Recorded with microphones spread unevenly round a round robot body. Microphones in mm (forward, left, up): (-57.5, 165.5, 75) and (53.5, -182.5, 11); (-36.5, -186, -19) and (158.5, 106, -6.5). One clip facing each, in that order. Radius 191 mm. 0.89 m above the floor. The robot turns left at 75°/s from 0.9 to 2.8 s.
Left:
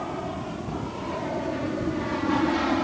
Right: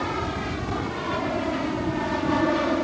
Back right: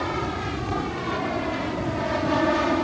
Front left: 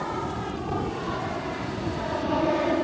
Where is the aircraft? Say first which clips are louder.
Right 3 dB, back right 3 dB; 95° right; by 2.9 s straight behind.